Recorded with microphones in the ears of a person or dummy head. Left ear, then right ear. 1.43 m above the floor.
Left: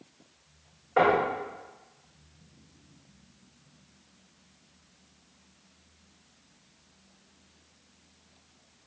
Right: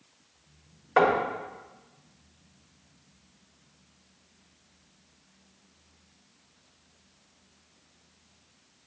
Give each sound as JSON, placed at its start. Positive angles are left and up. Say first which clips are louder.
{"t": 1.0, "sound": "knocking", "louder": "even", "side_deg": -65, "distance_m": 1.0}